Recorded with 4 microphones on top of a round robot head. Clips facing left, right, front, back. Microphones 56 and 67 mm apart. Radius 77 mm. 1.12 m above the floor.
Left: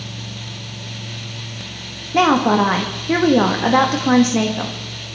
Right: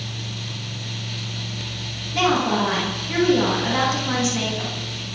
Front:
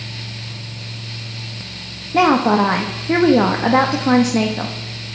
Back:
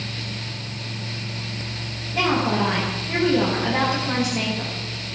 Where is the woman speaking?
35° left, 1.6 m.